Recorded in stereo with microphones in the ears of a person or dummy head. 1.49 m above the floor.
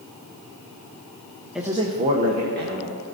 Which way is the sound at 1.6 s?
Centre (ahead or behind).